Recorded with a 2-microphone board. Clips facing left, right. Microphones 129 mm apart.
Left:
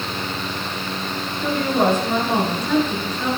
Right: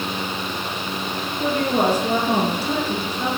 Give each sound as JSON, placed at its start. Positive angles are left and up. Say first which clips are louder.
{"t": 1.4, "sound": "a woman speaking", "louder": "left 1 dB", "side_deg": -40, "distance_m": 5.0}